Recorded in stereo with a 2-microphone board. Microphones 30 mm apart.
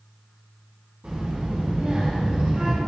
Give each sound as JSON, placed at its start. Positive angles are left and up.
{"t": 1.0, "sound": "a child speaking", "side_deg": -45, "distance_m": 3.0}